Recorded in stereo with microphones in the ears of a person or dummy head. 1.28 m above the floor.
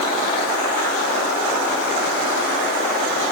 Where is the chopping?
No chopping in this recording.